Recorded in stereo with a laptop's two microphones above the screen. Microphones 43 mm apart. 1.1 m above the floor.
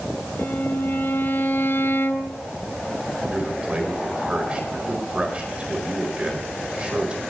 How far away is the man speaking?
About 4 m.